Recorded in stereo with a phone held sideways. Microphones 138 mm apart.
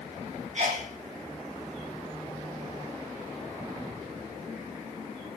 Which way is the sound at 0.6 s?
55° right (ahead or behind).